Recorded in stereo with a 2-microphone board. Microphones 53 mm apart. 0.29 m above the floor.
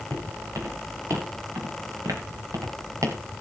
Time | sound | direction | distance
0.1 | footsteps | 75° right (ahead or behind) | 7 m